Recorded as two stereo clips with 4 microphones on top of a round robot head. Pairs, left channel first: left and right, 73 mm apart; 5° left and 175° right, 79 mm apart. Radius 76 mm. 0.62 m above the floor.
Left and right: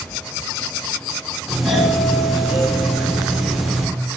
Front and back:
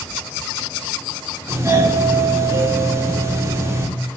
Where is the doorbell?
175° right, 1.9 m.